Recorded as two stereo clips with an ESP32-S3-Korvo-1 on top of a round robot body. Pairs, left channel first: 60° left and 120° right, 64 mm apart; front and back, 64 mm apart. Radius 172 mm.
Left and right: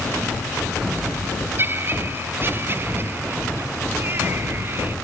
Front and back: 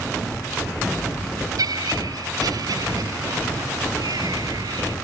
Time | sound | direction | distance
1.6 | laughter | 175° right | ?